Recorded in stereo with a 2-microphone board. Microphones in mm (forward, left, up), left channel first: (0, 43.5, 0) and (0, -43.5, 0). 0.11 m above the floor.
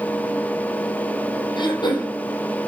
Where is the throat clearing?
60° left (ahead or behind), 4 m.